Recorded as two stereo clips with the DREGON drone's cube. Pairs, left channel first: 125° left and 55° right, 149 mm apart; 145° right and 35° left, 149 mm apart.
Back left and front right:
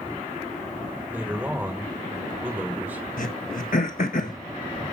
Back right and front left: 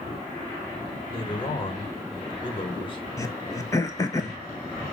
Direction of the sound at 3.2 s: 145° left.